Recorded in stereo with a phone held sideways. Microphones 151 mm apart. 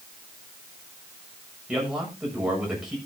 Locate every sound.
1.7 s a man speaking: 5° right (ahead or behind), 6.5 m